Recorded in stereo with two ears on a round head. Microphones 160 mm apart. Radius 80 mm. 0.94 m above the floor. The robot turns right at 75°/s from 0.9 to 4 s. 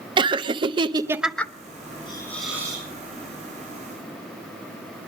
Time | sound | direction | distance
0.2 | laughter | 30° right | 0.7 m
2.1 | a hiss | 150° left | 6.5 m